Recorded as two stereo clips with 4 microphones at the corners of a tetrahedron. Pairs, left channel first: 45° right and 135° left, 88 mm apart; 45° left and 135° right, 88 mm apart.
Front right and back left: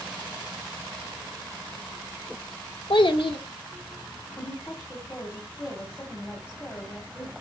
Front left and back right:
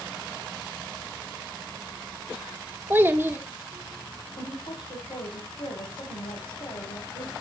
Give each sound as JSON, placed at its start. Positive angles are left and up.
{"t": 2.9, "sound": "a child speaking", "azimuth_deg": -70, "distance_m": 1.3}
{"t": 4.4, "sound": "a woman speaking", "azimuth_deg": 20, "distance_m": 4.0}